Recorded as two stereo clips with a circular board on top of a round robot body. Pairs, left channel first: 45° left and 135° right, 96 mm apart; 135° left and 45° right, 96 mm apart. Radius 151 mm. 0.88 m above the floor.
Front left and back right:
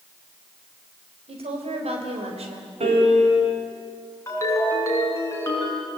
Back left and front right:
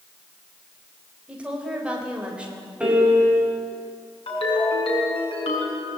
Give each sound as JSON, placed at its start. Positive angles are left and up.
{"t": 1.3, "sound": "a woman speaking", "azimuth_deg": -125, "distance_m": 4.5}
{"t": 2.8, "sound": "a piano", "azimuth_deg": -125, "distance_m": 4.5}
{"t": 4.3, "sound": "a ringtone", "azimuth_deg": 105, "distance_m": 6.5}